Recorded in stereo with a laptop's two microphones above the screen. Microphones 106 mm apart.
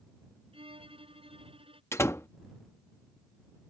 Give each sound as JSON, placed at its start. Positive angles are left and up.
{"t": 0.5, "sound": "a violin", "side_deg": -60}
{"t": 1.9, "sound": "a door slam", "side_deg": 25}